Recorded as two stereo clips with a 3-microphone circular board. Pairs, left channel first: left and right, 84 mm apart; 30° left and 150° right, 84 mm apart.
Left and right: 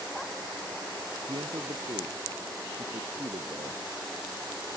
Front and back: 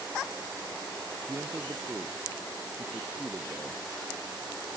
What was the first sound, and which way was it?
A man speaking, 95° right.